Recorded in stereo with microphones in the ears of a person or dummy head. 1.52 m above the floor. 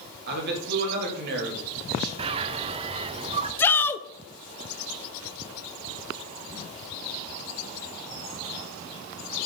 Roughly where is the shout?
Centre.